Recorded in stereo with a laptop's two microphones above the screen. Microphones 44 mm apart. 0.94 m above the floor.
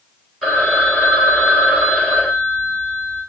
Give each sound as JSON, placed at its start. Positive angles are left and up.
{"t": 0.4, "sound": "a phone ringing", "side_deg": 0, "distance_m": 3.0}